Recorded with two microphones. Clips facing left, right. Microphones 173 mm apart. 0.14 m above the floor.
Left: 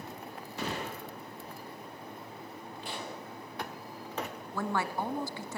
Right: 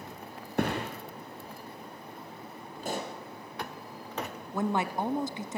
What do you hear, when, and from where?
0.6 s a thud: 55° right (ahead or behind), 5.5 m
2.8 s a pop: 45° right (ahead or behind), 3 m
4.5 s a woman speaking: 20° right (ahead or behind), 1.1 m